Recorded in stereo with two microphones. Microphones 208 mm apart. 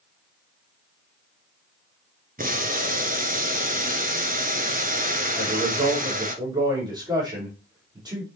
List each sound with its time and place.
2.4 s boiling: 40° right (ahead or behind), 1.2 m
5.3 s a man speaking: 20° right (ahead or behind), 4.5 m